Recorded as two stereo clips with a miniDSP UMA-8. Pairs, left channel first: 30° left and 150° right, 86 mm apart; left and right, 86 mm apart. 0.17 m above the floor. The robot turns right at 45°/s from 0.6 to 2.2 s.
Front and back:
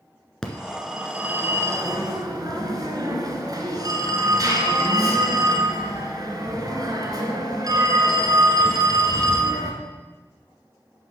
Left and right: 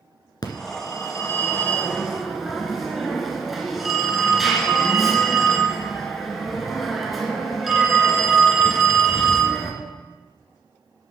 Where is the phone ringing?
110° left, 1.5 m; by 9.7 s 175° right, 1.5 m.